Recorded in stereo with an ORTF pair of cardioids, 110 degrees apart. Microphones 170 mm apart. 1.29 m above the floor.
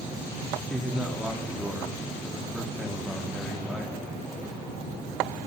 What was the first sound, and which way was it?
A man speaking, straight ahead.